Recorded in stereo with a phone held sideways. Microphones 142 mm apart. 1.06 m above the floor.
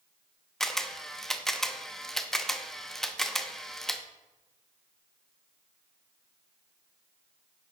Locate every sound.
0.6 s a camera shutter: 5° left (ahead or behind), 0.6 m